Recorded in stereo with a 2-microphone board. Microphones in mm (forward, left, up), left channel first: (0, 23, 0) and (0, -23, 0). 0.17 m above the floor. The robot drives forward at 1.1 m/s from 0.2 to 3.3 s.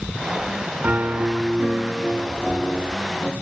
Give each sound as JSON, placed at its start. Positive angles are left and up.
{"t": 0.8, "sound": "a piano", "side_deg": -35, "distance_m": 0.6}